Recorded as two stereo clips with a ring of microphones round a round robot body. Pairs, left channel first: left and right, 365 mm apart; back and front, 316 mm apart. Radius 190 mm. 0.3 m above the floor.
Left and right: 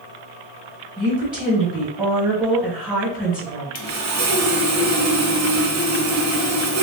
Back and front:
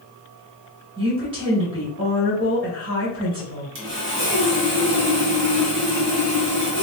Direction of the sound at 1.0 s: 35° right.